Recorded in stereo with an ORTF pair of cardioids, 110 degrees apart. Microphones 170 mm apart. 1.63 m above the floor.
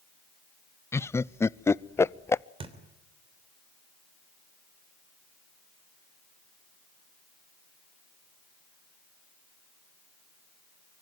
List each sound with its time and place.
0.9 s laughter: 15° left, 0.6 m
2.6 s a thud: 35° right, 3 m